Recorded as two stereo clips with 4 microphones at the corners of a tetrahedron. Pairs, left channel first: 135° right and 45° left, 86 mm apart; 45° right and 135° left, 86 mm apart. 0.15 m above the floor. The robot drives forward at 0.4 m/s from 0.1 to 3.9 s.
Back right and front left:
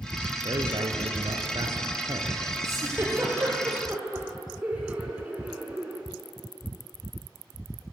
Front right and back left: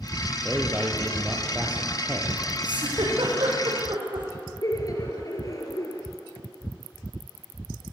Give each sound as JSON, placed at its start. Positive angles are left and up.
{"t": 0.5, "sound": "a man speaking", "azimuth_deg": 50, "distance_m": 2.5}
{"t": 2.6, "sound": "a giggle", "azimuth_deg": 105, "distance_m": 5.5}
{"t": 4.6, "sound": "laughter", "azimuth_deg": -25, "distance_m": 2.5}